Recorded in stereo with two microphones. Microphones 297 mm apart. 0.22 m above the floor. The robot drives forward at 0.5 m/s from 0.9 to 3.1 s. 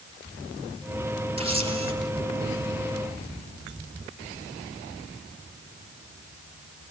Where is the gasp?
I don't hear a gasp.